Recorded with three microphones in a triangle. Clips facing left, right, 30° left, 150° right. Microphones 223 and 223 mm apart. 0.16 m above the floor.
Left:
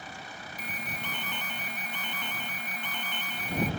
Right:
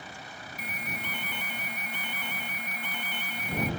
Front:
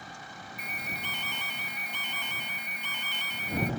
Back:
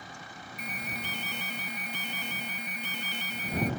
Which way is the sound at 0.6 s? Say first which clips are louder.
Right 1 dB, back 4 dB; 165° right.